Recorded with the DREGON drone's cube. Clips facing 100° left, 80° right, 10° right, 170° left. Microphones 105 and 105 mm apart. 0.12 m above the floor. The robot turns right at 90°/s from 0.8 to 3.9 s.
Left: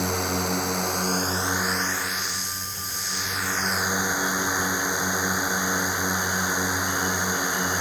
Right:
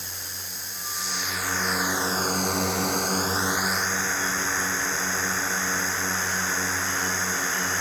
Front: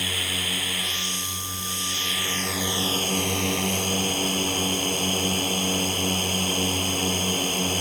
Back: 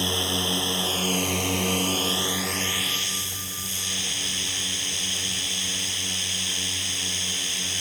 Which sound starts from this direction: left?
A drone, at 0.0 s.